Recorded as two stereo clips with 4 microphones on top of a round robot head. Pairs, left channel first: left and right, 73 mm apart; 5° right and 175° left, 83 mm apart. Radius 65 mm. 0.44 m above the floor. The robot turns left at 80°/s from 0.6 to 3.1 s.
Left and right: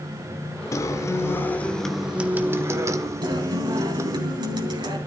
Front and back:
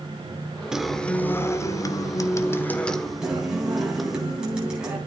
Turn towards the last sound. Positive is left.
turn(degrees=-100)